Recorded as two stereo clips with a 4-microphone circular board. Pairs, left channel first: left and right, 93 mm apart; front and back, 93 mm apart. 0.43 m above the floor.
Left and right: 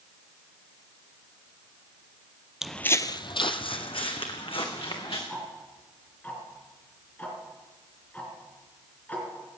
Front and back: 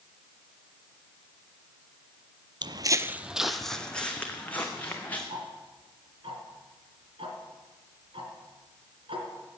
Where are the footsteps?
175° right, 0.6 m; by 5.2 s 70° left, 3 m.